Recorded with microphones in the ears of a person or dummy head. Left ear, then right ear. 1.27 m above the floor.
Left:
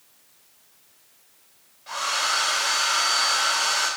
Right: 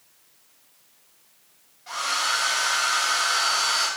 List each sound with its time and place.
1.9 s a hair dryer: 10° left (ahead or behind), 2.5 m